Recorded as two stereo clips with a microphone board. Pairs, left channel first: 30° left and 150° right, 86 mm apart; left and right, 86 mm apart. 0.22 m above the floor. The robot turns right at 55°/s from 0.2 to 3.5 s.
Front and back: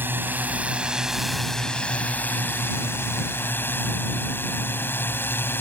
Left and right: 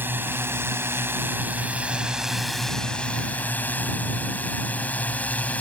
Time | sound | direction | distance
0.0 | a drone | 120° right | ?